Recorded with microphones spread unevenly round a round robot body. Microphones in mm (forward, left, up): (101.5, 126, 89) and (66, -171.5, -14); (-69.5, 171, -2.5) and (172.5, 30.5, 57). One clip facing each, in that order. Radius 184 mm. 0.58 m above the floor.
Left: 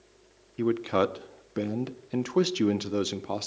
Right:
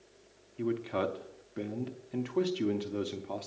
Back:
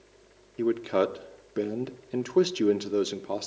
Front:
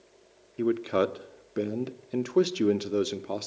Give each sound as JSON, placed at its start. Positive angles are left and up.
{"t": 0.6, "sound": "a man speaking", "azimuth_deg": 70, "distance_m": 0.8}